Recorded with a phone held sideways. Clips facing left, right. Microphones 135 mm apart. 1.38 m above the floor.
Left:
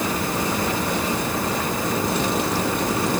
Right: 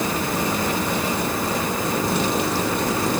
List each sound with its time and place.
Only background noise.